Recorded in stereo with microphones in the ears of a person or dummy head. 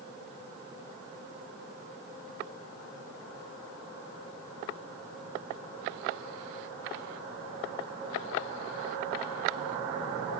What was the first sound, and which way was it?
Only background noise.